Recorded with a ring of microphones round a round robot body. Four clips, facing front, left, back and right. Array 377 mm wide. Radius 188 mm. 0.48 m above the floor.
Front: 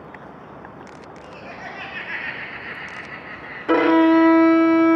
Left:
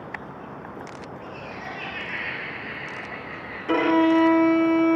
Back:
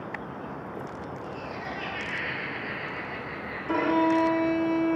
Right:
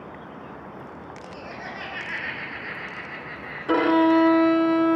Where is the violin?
10° right, 0.6 m.